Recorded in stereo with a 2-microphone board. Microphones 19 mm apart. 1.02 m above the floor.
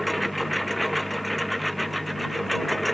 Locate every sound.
0.0 s a lawn mower: centre (ahead or behind)